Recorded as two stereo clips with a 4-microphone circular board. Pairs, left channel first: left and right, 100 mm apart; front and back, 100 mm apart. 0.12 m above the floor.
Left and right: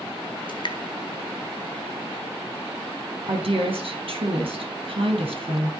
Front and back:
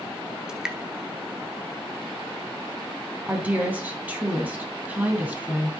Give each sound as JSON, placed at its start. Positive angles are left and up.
{"t": 0.5, "sound": "dripping", "azimuth_deg": 100, "distance_m": 1.2}
{"t": 3.3, "sound": "a woman speaking", "azimuth_deg": -105, "distance_m": 3.0}